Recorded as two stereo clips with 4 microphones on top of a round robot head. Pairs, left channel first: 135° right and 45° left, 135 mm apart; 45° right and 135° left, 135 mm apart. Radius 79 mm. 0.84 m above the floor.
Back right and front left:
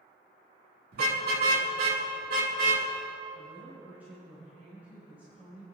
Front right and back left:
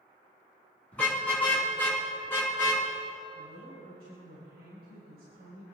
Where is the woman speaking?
125° left, 4 m.